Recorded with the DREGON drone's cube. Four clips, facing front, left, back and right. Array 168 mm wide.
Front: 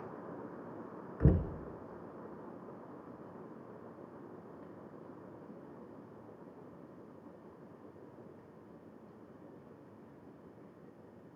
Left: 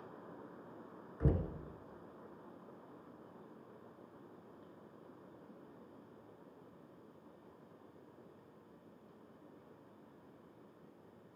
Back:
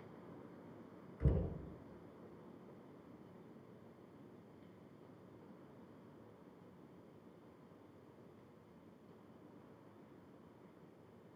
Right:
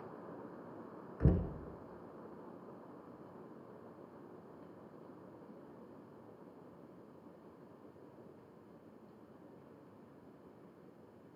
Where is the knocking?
15° right, 1.2 m.